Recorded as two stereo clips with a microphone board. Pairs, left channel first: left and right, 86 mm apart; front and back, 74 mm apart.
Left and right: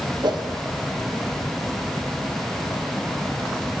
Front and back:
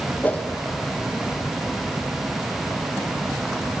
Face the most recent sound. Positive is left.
turn(degrees=-60)